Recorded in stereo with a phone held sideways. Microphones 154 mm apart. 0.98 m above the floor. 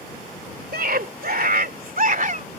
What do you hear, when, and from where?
0.7 s a scream: 80° right; by 2.5 s 60° right (ahead or behind)